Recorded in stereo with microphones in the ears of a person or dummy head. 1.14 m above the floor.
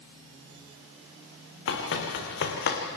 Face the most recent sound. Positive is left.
turn(degrees=55)  # may be behind; listen again after turning